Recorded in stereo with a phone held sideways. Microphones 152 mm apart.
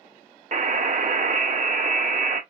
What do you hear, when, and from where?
0.5 s a buzzer: 55° right (ahead or behind), 0.5 m